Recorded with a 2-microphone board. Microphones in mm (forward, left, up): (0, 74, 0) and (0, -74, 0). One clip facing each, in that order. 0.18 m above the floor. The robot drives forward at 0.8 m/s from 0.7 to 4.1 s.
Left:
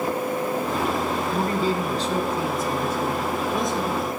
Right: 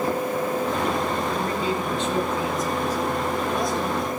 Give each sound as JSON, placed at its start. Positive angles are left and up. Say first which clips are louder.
{"t": 1.3, "sound": "a man speaking", "louder": "left 2 dB", "side_deg": 40, "distance_m": 1.3}